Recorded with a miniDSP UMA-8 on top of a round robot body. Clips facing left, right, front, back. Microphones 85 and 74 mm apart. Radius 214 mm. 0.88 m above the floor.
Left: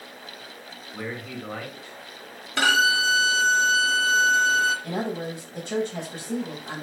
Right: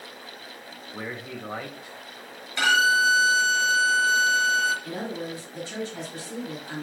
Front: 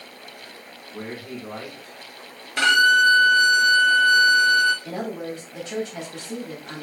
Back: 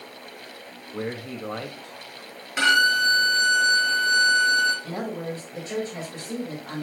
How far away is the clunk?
No clunk in this recording.